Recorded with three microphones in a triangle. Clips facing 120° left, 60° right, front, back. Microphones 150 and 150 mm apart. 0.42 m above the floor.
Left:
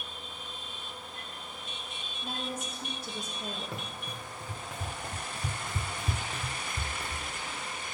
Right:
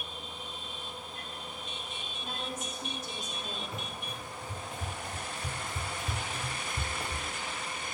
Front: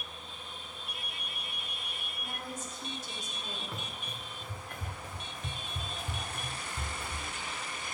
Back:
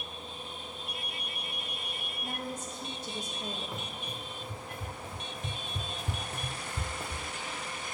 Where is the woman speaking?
170° left, 1.5 m.